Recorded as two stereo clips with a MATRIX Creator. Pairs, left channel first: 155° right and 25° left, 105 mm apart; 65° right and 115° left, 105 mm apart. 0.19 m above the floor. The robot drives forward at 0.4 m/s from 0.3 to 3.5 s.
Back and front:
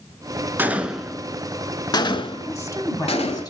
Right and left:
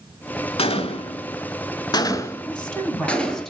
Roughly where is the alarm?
I don't hear an alarm.